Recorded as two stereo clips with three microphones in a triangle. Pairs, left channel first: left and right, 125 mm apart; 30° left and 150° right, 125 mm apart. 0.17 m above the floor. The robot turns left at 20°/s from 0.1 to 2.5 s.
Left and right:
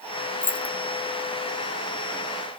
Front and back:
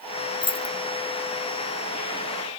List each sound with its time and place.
0.4 s keys jangling: 30° left, 0.9 m; by 0.8 s 20° left, 0.9 m